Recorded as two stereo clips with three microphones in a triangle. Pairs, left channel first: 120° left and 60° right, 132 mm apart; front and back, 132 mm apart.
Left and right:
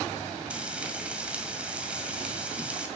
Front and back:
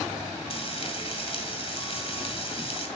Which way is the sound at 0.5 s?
15° left.